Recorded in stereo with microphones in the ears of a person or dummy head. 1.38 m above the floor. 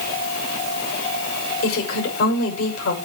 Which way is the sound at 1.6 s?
75° left (ahead or behind).